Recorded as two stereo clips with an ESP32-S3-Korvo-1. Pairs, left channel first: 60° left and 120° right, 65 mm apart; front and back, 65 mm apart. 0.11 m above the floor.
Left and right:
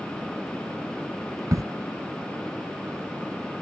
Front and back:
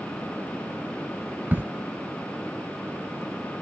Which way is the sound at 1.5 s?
125° right.